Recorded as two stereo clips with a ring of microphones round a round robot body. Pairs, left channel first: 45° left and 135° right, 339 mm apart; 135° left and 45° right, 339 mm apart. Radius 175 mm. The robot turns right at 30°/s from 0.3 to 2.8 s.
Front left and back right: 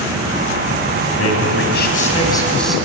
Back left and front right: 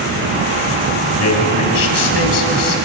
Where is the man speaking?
90° left, 4 m; by 2.8 s 135° left, 4 m.